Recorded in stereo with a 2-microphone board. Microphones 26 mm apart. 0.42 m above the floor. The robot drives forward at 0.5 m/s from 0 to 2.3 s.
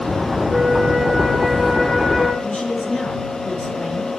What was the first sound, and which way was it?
A flute, 5° right (ahead or behind).